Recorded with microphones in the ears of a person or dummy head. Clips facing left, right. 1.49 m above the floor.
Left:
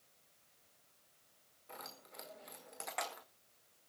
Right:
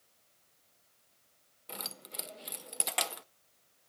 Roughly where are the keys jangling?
Right.